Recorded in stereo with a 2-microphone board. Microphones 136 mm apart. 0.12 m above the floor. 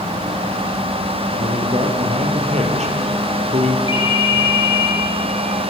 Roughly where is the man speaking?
Right.